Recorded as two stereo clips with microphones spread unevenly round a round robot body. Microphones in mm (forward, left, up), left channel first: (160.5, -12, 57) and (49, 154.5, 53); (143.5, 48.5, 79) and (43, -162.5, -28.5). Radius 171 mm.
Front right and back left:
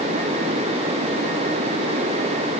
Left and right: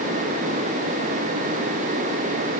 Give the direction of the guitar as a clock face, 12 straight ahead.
No guitar in this recording.